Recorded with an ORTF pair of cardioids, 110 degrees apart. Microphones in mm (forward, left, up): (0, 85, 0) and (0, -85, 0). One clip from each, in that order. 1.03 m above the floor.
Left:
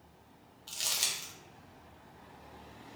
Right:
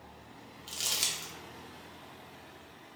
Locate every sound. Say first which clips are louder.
0.7 s crumpling: right 1 dB; 5° right, 0.6 m